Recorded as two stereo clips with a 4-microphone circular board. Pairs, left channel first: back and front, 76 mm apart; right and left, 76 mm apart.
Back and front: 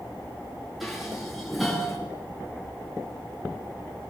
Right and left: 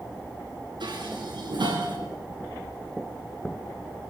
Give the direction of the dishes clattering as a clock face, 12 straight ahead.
9 o'clock.